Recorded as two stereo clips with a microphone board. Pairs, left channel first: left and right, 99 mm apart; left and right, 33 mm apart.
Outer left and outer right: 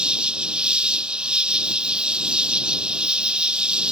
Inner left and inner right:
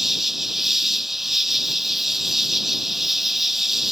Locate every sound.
0.0 s an insect: 10° right (ahead or behind)